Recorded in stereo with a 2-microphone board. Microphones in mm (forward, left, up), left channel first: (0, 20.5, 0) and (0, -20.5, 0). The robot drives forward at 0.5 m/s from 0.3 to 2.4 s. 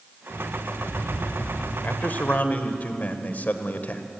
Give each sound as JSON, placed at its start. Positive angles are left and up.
{"t": 0.3, "sound": "an alarm clock", "side_deg": 40, "distance_m": 8.5}
{"t": 1.8, "sound": "a man speaking", "side_deg": 45, "distance_m": 1.5}